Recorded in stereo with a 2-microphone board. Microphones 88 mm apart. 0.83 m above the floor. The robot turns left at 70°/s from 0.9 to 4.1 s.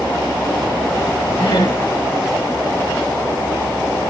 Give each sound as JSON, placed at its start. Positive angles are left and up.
{"t": 1.4, "sound": "laughter", "side_deg": 80, "distance_m": 6.5}